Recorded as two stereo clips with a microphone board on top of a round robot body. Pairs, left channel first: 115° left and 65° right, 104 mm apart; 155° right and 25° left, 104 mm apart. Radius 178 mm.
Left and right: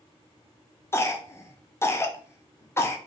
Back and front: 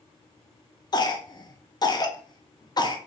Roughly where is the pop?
No pop in this recording.